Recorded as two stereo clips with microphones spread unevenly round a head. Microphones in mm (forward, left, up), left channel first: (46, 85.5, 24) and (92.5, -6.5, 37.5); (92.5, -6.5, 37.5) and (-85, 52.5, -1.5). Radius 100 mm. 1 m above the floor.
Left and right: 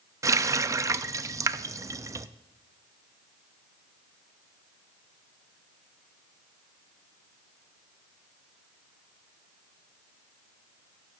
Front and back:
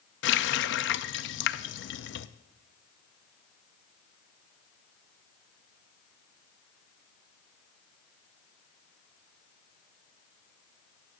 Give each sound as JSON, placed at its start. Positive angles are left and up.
{"t": 0.2, "sound": "a running tap", "azimuth_deg": -5, "distance_m": 0.5}